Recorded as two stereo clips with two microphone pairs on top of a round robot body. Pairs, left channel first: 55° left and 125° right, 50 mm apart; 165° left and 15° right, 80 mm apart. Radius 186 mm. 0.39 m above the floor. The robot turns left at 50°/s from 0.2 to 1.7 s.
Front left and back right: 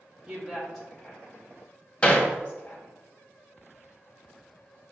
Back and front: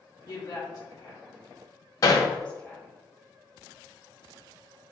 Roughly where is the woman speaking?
Behind.